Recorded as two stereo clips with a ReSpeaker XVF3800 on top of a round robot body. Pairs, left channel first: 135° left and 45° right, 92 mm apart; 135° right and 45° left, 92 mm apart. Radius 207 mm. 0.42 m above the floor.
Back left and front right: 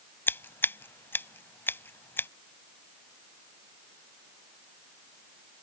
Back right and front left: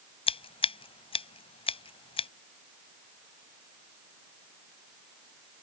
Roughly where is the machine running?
No machine running in this recording.